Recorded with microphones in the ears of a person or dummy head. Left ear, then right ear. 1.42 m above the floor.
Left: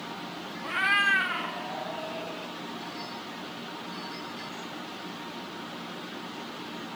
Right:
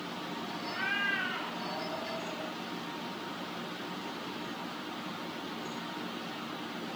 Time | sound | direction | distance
0.6 | a cat meowing | 60° left (ahead or behind) | 1.2 m